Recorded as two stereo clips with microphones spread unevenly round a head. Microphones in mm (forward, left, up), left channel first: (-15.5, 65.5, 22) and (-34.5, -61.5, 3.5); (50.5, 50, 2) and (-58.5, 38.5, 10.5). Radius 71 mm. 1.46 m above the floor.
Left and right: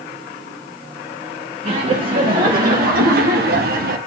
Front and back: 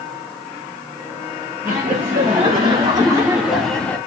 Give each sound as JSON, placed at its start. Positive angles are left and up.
{"t": 1.6, "sound": "laughter", "azimuth_deg": -125, "distance_m": 2.5}